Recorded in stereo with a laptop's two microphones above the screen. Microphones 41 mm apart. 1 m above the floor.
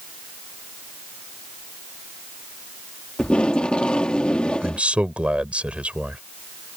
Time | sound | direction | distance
3.2 | tape being pulled | 25° left (ahead or behind) | ?
4.6 | a man speaking | 30° right (ahead or behind) | ?